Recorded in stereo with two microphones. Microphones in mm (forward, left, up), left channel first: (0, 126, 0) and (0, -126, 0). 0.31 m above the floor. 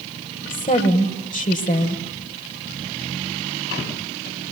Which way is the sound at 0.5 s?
30° left (ahead or behind).